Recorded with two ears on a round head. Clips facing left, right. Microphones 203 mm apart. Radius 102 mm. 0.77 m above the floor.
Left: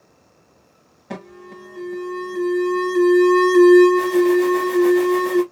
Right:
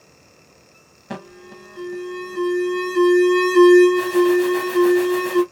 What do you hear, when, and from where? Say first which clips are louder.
1.1 s an alarm: even; 5° right (ahead or behind), 0.8 m